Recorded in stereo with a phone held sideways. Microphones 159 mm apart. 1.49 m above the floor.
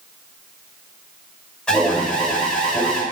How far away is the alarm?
About 4.5 m.